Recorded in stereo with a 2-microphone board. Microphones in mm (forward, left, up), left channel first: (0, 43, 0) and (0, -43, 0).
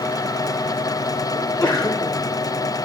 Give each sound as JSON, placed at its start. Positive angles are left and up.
{"t": 1.4, "sound": "a sneeze", "side_deg": 35, "distance_m": 1.5}